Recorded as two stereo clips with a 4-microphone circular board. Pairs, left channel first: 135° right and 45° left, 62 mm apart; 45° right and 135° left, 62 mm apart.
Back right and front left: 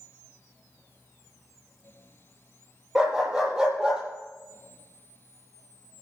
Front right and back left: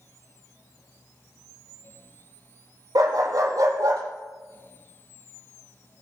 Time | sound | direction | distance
3.0 | a dog barking | 125° left | 5 m